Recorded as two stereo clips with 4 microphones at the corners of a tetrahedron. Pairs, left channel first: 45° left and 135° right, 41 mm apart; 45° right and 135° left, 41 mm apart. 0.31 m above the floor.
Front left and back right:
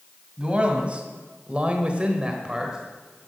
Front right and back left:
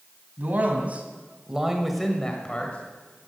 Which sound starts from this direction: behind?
A man speaking, at 0.4 s.